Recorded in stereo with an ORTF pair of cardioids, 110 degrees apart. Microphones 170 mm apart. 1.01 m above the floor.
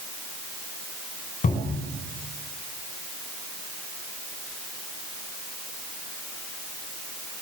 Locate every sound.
1.4 s a cupboard door: 50° left, 5 m